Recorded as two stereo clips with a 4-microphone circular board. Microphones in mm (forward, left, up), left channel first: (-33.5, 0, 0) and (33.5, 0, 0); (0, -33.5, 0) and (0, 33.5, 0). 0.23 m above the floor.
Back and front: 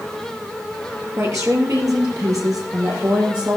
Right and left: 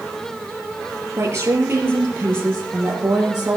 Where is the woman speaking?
40° left, 5 m; by 3.6 s 25° left, 8 m.